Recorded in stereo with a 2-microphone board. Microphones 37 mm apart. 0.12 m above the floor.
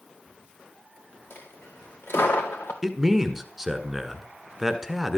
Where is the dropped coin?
85° left, 2.5 m.